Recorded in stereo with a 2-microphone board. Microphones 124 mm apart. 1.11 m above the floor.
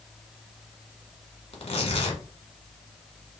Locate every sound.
1.5 s tearing paper: 50° left (ahead or behind), 1.1 m